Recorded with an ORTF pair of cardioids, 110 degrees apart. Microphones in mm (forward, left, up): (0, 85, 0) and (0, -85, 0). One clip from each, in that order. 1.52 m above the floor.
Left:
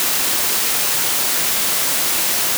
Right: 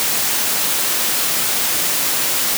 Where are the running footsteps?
No running footsteps in this recording.